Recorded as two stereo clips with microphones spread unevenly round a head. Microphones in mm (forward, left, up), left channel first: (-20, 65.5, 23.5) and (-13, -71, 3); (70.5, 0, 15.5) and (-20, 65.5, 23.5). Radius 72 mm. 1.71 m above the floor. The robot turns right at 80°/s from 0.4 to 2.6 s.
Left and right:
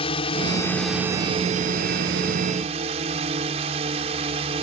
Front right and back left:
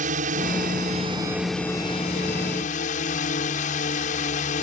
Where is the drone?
145° left; by 4.6 s 35° right.